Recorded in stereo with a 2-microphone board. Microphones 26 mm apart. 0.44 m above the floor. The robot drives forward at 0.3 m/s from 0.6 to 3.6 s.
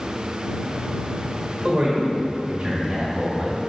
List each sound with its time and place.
1.6 s a man speaking: 20° right (ahead or behind), 1.7 m; by 3.6 s 15° right (ahead or behind), 2 m